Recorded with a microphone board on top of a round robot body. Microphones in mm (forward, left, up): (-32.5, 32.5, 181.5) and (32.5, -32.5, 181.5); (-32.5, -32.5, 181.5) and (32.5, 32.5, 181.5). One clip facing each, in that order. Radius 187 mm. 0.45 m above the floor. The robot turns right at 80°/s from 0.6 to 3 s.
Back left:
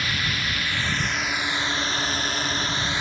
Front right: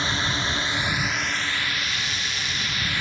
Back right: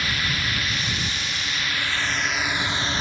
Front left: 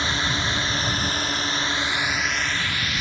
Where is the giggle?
No giggle in this recording.